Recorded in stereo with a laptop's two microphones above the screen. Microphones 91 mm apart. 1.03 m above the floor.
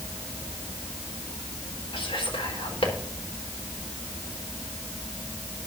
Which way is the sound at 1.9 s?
80° left.